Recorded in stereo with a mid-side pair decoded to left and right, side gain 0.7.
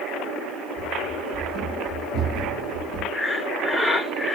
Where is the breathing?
5° left, 1.7 m.